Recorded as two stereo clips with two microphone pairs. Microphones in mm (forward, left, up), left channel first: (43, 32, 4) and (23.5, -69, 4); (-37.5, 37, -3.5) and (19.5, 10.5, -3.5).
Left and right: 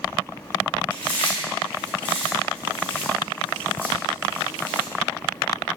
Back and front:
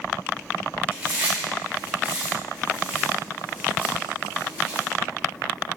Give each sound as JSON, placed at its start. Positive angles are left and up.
{"t": 0.9, "sound": "chewing", "azimuth_deg": 20, "distance_m": 1.3}